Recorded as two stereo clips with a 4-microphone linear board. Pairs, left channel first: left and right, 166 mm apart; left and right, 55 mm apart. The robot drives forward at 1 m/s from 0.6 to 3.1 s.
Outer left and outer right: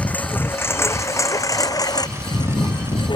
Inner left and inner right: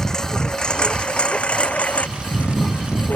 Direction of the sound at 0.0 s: 10° left (ahead or behind).